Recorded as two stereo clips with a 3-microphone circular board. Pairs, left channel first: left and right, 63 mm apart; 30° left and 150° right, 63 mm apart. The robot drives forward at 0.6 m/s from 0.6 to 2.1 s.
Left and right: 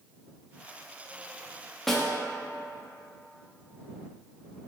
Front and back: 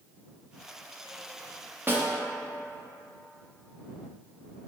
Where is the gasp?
I don't hear a gasp.